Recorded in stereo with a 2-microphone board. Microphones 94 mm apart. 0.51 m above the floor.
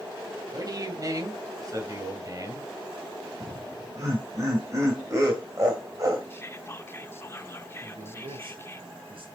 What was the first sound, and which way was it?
A man speaking, 40° right (ahead or behind).